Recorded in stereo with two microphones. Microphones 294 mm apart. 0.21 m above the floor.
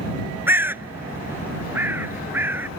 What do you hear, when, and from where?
0.5 s a bird: 5° right (ahead or behind)